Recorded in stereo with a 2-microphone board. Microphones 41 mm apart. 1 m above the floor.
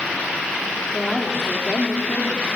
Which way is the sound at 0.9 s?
15° left (ahead or behind).